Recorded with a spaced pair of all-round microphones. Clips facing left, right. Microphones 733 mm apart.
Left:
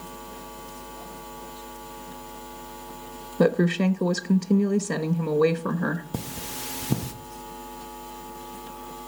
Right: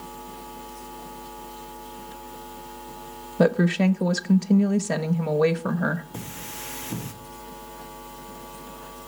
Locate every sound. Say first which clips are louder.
3.4 s a woman speaking: right 1 dB; 25° right (ahead or behind), 0.6 m
6.1 s cutlery clinking: left 4 dB; 65° left (ahead or behind), 1.1 m